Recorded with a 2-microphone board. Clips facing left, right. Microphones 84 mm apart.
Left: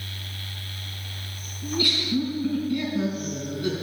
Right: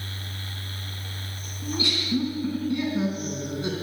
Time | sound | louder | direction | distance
1.6 | laughter | left 2 dB | 20° right (ahead or behind) | 4 m